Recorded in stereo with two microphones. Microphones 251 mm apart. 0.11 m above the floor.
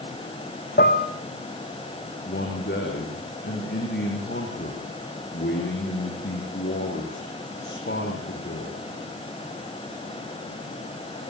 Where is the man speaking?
45° left (ahead or behind), 7.5 m.